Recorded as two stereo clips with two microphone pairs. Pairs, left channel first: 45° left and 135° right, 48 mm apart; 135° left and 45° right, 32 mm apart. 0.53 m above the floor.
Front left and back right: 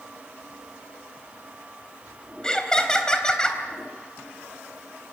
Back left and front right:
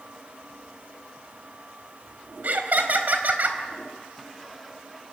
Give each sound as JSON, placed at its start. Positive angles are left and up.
{"t": 2.4, "sound": "laughter", "azimuth_deg": -25, "distance_m": 3.5}